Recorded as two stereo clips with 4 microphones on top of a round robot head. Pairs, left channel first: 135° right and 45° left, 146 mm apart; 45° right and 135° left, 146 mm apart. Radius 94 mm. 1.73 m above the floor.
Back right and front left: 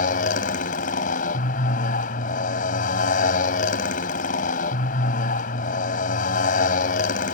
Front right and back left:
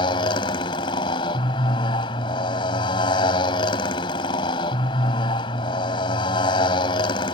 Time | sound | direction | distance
0.0 | a motorcycle | 105° right | ?